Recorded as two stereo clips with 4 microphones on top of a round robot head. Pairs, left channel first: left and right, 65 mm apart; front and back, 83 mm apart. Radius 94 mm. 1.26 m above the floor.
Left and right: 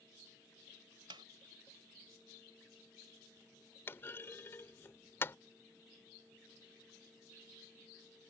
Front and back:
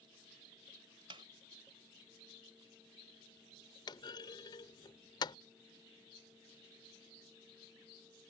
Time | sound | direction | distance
1.1 | a snare drum | 130° right | ?
3.9 | a clunk | 35° left | ?